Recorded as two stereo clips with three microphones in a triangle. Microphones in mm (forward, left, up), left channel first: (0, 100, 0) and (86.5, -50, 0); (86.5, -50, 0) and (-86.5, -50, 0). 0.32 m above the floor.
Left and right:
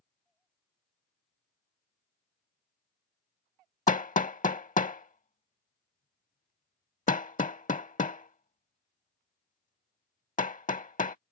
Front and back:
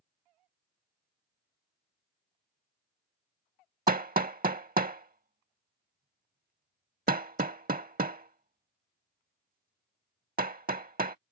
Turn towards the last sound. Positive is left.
turn(degrees=155)